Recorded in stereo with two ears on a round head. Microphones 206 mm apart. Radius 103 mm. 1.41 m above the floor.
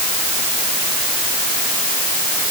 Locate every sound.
Only background noise.